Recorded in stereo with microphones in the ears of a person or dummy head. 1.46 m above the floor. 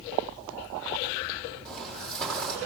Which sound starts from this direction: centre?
Footsteps, at 1.6 s.